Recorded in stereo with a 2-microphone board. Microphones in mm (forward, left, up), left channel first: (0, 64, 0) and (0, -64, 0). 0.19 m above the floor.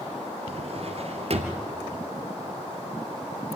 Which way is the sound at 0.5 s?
50° right (ahead or behind).